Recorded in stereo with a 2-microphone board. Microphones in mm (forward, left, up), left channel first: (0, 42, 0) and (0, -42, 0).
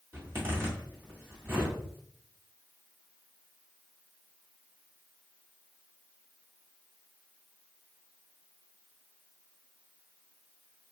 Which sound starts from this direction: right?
A zipper, at 0.1 s.